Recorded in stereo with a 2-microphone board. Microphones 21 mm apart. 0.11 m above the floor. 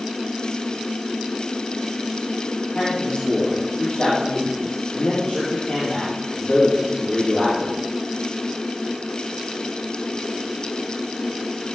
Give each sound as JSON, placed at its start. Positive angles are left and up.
{"t": 2.8, "sound": "a man speaking", "side_deg": 55, "distance_m": 4.0}